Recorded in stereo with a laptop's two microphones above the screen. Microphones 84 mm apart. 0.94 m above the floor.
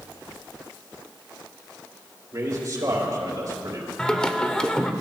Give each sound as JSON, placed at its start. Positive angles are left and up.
{"t": 2.3, "sound": "a man speaking", "side_deg": -40, "distance_m": 3.5}
{"t": 4.0, "sound": "singing", "side_deg": 10, "distance_m": 0.7}